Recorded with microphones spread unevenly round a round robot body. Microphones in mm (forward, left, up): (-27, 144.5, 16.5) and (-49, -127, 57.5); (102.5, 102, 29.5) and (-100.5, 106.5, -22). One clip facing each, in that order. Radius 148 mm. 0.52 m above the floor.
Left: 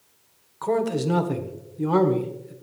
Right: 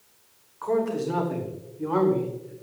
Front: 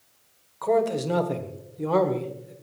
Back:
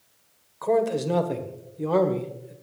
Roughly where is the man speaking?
Left.